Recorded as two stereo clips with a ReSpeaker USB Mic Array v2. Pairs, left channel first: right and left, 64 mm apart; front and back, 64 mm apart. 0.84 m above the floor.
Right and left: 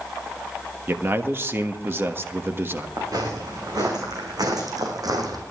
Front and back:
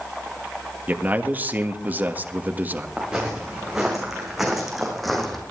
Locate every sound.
0.9 s a man speaking: 130° left, 1.4 m
3.0 s footsteps: 100° left, 6 m; by 5.4 s 85° left, 3 m